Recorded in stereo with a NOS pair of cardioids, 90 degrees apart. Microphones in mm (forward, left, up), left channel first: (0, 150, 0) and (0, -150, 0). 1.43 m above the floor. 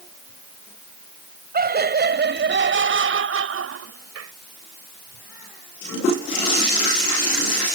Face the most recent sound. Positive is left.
turn(degrees=-55)